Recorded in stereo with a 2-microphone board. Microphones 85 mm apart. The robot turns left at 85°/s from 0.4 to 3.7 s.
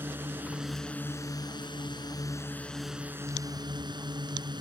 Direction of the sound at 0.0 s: 155° right.